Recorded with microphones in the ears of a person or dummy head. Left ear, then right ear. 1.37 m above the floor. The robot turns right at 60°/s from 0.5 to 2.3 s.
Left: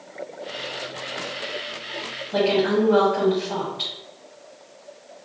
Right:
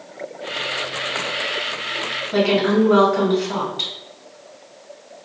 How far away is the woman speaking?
About 1.8 m.